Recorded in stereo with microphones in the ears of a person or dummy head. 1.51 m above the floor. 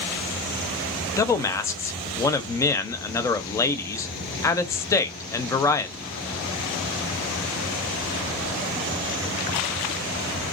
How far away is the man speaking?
About 0.6 m.